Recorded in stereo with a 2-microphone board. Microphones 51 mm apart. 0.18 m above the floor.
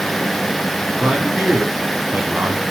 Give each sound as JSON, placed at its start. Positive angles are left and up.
{"t": 1.0, "sound": "a man speaking", "side_deg": -30, "distance_m": 1.5}